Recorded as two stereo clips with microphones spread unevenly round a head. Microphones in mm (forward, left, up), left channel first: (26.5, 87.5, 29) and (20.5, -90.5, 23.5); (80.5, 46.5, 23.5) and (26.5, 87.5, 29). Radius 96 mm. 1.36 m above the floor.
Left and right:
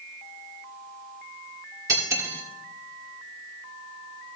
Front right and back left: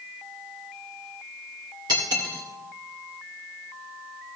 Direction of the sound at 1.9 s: 165° right.